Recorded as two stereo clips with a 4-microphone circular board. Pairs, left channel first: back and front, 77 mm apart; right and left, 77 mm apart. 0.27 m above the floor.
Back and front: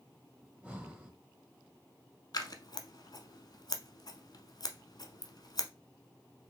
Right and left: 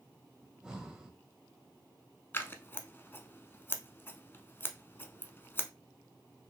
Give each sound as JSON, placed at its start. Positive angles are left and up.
{"t": 0.4, "sound": "breathing", "azimuth_deg": 30, "distance_m": 1.1}
{"t": 2.3, "sound": "scissors", "azimuth_deg": -150, "distance_m": 0.7}